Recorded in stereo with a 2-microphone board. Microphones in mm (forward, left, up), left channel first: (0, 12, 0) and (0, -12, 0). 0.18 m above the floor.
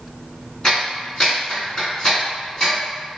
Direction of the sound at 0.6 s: 30° left (ahead or behind).